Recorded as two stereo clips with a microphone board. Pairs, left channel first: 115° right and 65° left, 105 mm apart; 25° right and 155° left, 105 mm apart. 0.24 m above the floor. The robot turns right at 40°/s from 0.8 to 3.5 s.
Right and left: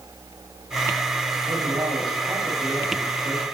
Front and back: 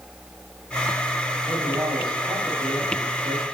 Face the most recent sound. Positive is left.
turn(degrees=170)